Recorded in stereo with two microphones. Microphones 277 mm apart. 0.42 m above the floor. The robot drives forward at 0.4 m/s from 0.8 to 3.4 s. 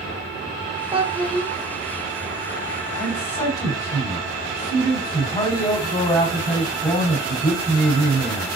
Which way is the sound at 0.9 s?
20° right (ahead or behind).